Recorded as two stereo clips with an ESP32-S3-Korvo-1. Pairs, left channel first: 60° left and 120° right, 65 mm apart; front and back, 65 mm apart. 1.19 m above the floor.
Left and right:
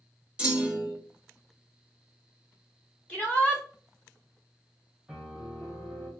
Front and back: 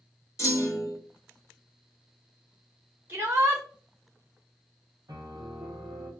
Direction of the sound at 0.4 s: 50° right.